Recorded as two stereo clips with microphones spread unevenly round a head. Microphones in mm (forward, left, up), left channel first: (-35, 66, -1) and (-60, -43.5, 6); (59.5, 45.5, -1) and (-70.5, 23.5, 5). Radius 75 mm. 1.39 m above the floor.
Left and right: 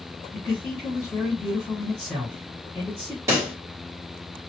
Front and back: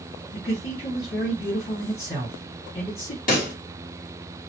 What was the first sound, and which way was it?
A man speaking, 10° right.